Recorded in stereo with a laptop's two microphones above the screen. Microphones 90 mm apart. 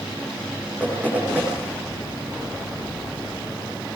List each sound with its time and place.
0.8 s knocking: 20° right (ahead or behind), 8.5 m